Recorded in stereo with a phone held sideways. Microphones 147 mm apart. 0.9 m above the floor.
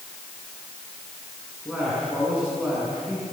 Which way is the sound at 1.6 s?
10° right (ahead or behind).